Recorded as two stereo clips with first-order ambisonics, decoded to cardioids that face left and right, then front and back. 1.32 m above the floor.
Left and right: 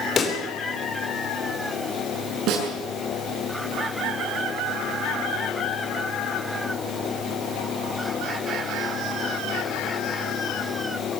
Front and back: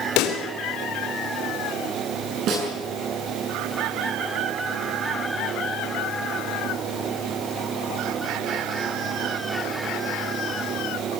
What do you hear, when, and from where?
0.2 s a pop: 25° left, 3 m
2.5 s a snare drum: 135° right, 8 m